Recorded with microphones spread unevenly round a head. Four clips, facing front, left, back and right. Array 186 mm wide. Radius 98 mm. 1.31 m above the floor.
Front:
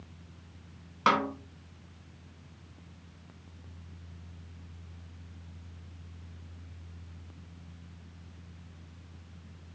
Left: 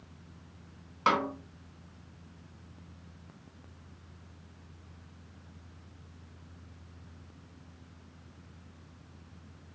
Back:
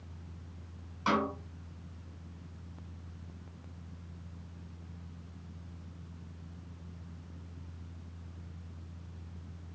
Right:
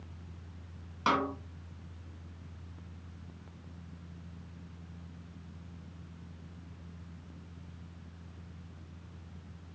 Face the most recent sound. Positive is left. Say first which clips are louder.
# left 2 dB, front 4 dB
turn(degrees=10)